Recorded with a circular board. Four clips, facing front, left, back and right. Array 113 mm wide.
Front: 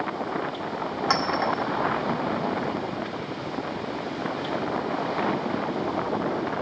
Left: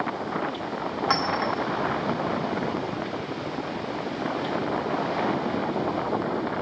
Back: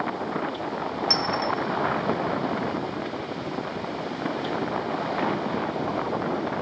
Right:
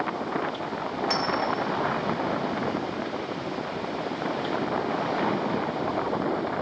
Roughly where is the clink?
Ahead left.